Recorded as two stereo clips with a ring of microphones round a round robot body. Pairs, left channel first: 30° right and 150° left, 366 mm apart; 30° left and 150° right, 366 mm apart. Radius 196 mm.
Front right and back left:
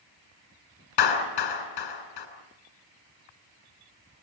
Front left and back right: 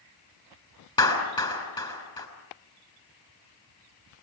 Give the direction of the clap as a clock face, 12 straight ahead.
2 o'clock.